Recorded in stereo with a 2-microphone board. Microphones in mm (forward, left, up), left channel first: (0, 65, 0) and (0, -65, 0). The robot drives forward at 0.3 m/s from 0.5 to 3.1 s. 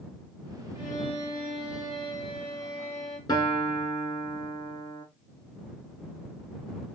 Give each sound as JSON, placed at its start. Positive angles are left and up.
{"t": 0.8, "sound": "a violin", "side_deg": 35, "distance_m": 2.5}
{"t": 3.3, "sound": "a guitar", "side_deg": 35, "distance_m": 0.8}